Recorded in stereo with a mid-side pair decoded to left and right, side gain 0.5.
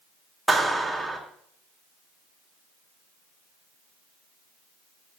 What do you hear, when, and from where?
0.5 s a clap: 5° right, 3.5 m